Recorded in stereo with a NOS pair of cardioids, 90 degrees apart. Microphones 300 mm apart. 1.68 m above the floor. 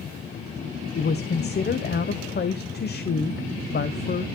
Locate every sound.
0.9 s a woman speaking: 35° left, 1.0 m